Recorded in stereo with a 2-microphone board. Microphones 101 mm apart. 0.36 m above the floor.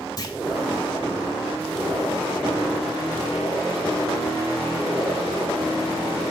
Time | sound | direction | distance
0.2 | a clunk | 40° left (ahead or behind) | 1.8 m